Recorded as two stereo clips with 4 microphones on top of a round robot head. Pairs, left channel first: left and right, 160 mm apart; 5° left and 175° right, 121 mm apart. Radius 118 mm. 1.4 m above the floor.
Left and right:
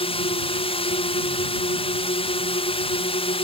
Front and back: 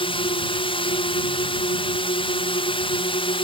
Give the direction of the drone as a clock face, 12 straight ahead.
11 o'clock.